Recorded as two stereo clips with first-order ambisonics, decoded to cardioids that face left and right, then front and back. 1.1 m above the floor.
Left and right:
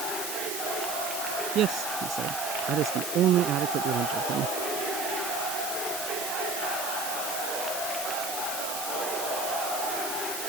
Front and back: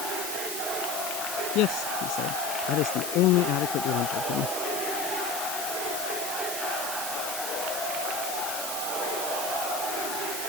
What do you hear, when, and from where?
1.6 s a man speaking: 35° right